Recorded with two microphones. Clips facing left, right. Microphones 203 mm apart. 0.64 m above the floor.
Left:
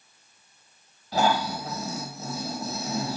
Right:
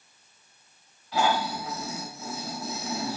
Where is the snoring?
40° left (ahead or behind), 1.4 m.